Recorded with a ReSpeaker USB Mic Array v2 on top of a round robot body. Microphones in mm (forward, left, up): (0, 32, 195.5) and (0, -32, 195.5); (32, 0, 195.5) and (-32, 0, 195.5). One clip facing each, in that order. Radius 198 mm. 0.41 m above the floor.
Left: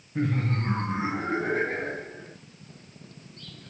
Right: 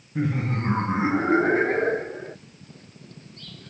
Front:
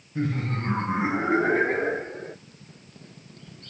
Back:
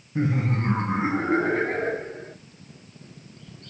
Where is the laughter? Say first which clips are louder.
Right 2 dB, back 3 dB; 175° right, 1.2 m; by 2.4 s 60° right, 2.0 m.